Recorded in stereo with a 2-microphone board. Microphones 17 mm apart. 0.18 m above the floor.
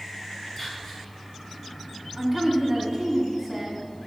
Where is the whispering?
20° left (ahead or behind), 1.9 m.